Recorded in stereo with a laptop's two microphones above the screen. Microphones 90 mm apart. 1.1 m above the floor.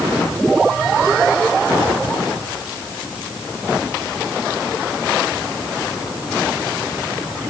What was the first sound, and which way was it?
Only background noise.